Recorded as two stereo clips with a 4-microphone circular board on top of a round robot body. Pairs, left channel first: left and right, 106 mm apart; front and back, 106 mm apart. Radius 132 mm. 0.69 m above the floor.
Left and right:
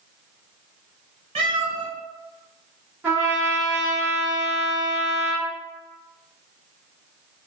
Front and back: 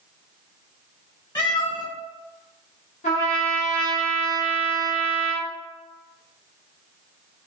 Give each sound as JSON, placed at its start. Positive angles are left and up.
{"t": 1.4, "sound": "a cat meowing", "azimuth_deg": -50, "distance_m": 1.1}
{"t": 3.0, "sound": "a trumpet", "azimuth_deg": -15, "distance_m": 1.2}